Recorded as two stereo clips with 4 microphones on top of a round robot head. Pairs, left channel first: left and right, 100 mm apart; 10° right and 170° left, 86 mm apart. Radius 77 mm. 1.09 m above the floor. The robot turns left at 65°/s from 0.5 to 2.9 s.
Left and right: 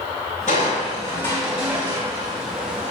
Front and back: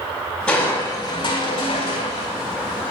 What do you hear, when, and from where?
0.5 s crushing: 65° left, 4.5 m; by 2.9 s 90° right, 4.5 m